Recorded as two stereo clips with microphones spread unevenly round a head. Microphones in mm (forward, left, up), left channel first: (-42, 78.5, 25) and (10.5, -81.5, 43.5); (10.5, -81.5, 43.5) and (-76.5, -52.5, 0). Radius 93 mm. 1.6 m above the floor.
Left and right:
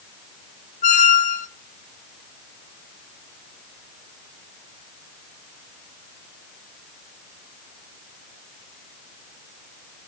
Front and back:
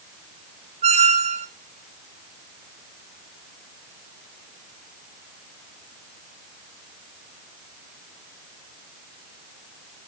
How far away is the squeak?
About 0.9 m.